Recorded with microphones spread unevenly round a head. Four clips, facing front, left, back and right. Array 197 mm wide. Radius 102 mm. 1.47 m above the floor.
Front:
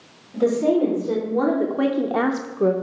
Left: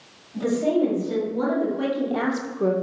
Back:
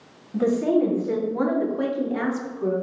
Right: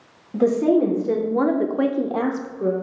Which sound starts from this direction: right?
A woman speaking, at 0.3 s.